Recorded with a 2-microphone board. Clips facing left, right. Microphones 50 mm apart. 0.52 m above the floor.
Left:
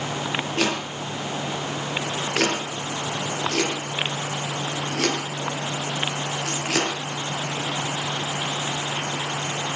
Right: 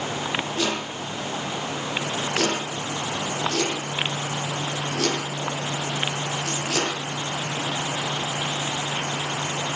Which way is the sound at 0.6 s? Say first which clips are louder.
Left 2 dB; 70° left (ahead or behind).